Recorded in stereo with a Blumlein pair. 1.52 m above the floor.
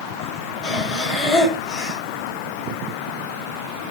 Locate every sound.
0.6 s breathing: 25° left, 4.5 m